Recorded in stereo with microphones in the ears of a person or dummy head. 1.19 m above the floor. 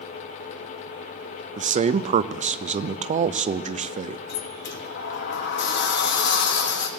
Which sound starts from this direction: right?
A man speaking, at 1.6 s.